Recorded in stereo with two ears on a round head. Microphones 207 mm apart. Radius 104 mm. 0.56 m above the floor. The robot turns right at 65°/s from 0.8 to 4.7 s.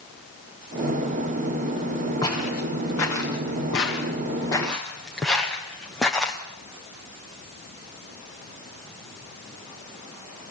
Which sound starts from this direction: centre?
Footsteps, at 2.2 s.